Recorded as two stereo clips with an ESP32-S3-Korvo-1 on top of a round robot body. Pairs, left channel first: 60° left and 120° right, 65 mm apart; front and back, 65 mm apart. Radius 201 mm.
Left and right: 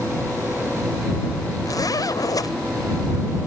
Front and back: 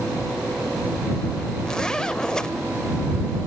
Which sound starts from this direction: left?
A zipper, at 1.6 s.